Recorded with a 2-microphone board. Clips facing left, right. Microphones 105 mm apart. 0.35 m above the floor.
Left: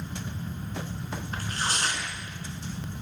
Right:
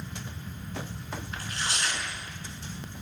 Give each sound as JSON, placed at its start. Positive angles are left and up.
{"t": 1.3, "sound": "tearing paper", "side_deg": 40, "distance_m": 4.0}